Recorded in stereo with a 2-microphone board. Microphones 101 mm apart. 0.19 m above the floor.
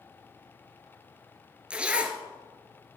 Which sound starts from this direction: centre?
A zipper, at 1.7 s.